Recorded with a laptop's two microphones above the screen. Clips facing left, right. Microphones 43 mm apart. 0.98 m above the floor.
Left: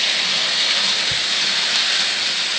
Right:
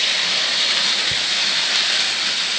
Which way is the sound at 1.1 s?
5° right (ahead or behind).